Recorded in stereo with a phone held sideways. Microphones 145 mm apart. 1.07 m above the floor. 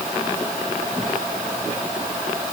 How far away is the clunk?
No clunk in this recording.